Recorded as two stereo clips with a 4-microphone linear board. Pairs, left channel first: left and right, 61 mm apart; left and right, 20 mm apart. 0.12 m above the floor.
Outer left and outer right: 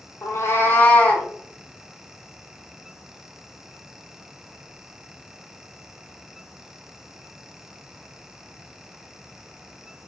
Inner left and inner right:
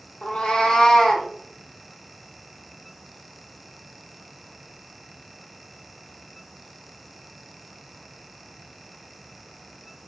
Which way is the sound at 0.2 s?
60° left (ahead or behind).